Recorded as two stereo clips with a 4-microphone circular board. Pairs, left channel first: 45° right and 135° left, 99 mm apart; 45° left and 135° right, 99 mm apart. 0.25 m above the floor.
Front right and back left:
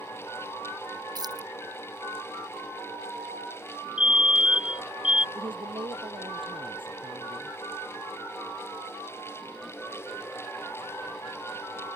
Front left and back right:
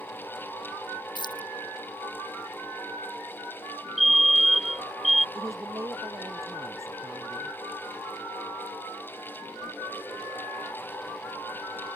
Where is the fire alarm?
45° right.